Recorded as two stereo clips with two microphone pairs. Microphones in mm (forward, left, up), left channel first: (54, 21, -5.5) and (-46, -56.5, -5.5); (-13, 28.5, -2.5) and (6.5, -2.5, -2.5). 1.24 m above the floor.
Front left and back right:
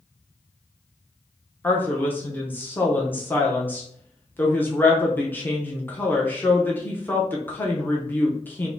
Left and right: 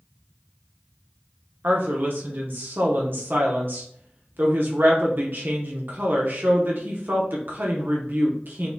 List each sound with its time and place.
1.6 s a woman speaking: 35° right, 0.9 m